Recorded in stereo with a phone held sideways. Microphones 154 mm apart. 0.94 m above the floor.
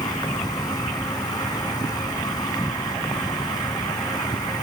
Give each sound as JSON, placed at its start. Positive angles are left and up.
{"t": 0.0, "sound": "an insect", "side_deg": 25}